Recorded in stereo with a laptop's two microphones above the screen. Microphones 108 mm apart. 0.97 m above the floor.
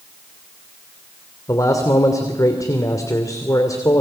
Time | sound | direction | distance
1.5 | a man speaking | 35° left (ahead or behind) | 2.5 m